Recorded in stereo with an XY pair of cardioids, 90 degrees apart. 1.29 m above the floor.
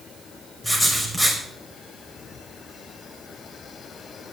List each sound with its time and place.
0.6 s writing: 5° left, 5 m